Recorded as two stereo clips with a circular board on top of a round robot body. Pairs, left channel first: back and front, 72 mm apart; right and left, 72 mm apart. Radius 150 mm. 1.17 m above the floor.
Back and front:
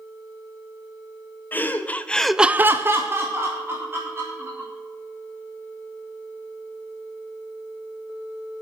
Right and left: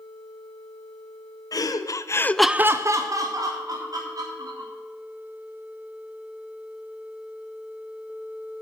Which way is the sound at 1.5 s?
120° right.